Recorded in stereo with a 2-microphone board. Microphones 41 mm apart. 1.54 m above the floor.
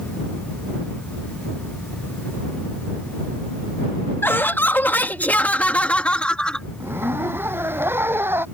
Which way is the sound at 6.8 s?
65° right (ahead or behind).